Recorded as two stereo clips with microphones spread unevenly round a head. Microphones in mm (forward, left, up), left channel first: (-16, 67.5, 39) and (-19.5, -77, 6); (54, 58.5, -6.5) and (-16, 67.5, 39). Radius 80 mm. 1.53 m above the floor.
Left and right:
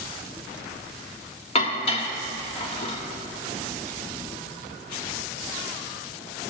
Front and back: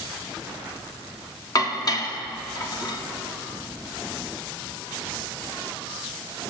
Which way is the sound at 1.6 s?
40° left.